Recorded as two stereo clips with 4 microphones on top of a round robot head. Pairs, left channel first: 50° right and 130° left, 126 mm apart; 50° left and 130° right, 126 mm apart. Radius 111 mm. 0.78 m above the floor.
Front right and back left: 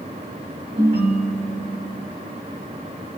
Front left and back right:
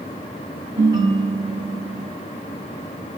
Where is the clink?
No clink in this recording.